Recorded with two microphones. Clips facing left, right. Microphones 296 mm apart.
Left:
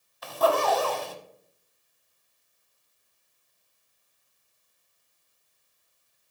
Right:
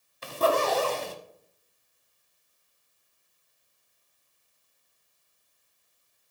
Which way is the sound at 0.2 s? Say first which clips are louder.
Left 1 dB; 30° right (ahead or behind).